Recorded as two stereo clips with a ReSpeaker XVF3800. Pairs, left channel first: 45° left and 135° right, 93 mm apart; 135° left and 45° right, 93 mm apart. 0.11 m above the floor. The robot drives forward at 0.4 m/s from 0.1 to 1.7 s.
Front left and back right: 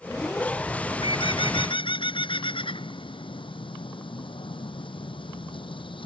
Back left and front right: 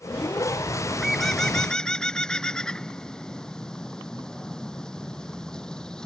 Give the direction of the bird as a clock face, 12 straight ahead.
11 o'clock.